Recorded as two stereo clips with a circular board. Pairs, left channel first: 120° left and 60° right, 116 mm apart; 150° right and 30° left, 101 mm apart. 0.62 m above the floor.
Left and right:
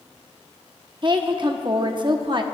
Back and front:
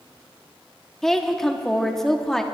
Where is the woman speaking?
65° right, 0.9 m.